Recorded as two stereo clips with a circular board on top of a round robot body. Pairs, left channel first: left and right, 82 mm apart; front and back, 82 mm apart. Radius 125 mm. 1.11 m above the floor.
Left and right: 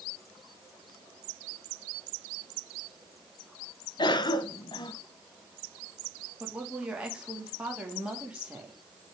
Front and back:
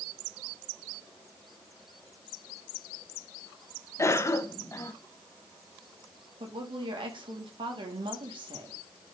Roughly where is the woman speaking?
Behind.